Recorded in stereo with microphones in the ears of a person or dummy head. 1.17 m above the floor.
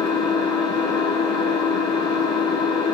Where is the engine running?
25° left (ahead or behind), 4 m.